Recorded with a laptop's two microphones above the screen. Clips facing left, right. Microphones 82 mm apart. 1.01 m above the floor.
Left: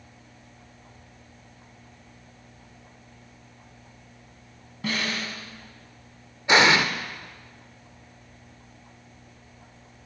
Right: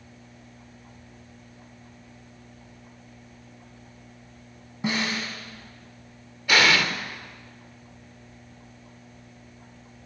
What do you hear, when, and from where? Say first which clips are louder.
4.8 s a snare drum: right 2 dB; 20° right (ahead or behind), 3 m
6.5 s an explosion: left 2 dB; 25° left (ahead or behind), 0.9 m